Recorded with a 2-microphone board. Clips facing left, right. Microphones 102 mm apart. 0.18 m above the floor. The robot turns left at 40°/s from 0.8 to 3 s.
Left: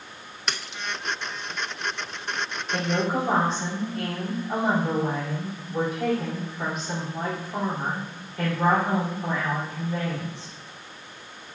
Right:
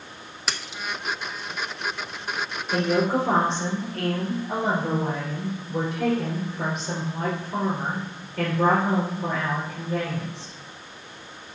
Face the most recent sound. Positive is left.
turn(degrees=-70)  # may be behind; listen again after turning